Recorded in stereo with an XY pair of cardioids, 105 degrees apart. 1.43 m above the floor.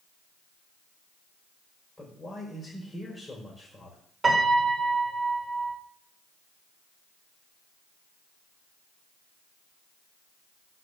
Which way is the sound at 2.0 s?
25° left.